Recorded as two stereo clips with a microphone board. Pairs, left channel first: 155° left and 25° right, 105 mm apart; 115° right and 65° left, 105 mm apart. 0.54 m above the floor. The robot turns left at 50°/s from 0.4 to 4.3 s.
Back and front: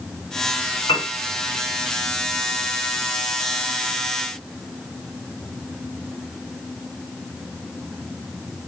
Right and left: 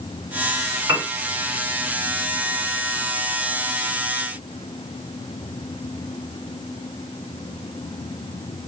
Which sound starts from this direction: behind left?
A piano, at 0.9 s.